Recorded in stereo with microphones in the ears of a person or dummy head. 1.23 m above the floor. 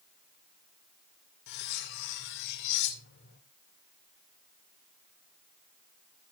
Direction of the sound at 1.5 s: 60° left (ahead or behind).